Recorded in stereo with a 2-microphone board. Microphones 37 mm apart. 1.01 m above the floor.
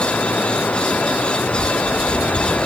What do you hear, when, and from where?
0.0 s running water: 55° left (ahead or behind)